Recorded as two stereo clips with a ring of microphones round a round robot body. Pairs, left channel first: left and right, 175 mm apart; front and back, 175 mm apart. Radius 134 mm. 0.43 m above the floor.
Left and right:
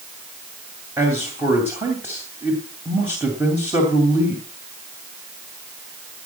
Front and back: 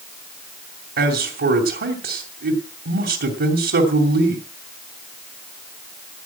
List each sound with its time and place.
1.0 s a man speaking: 170° right, 2.5 m